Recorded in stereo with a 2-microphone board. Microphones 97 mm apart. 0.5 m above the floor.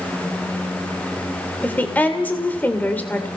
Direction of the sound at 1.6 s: 15° left (ahead or behind).